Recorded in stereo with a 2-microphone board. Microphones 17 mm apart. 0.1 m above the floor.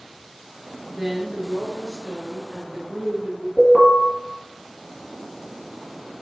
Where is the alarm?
20° left (ahead or behind), 2.5 m.